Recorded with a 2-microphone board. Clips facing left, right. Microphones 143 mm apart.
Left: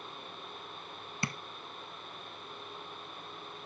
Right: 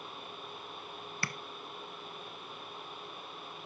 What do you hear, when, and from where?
1.2 s tapping: 20° left (ahead or behind), 0.5 m